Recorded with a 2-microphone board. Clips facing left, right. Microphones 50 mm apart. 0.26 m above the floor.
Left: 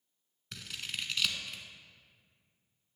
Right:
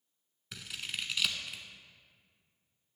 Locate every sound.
0.5 s scissors: 5° right (ahead or behind), 0.8 m